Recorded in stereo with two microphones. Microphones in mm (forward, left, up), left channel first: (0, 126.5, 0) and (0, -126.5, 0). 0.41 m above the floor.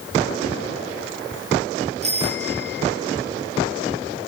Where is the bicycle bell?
25° right (ahead or behind), 7 m.